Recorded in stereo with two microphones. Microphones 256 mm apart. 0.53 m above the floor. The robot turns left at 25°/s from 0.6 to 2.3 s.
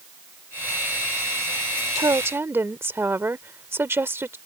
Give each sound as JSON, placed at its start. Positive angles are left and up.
{"t": 2.0, "sound": "a woman speaking", "side_deg": -15}